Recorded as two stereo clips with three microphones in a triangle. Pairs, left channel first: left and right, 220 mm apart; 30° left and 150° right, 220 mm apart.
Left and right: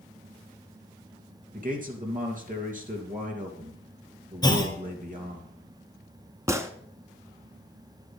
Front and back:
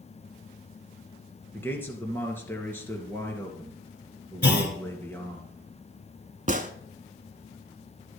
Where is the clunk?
25° left, 1.4 m.